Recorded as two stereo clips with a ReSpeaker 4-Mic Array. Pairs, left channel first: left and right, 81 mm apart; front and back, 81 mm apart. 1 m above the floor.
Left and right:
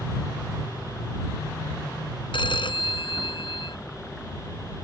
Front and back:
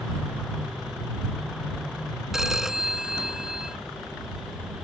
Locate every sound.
2.3 s a phone ringing: 95° left